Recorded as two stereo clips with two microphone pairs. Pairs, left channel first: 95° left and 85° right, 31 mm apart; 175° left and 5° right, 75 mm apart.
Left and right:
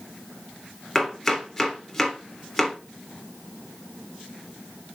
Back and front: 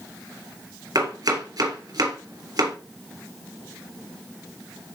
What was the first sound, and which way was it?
Chopping, 15° left.